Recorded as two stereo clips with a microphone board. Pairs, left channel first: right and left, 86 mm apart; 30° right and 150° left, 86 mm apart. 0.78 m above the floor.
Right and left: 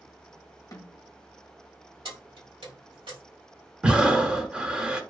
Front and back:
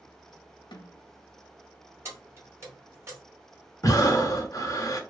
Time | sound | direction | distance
0.7 | a snare drum | 45° right | 0.6 m
2.0 | keys jangling | 95° left | 1.2 m
3.8 | breathing | 15° left | 0.6 m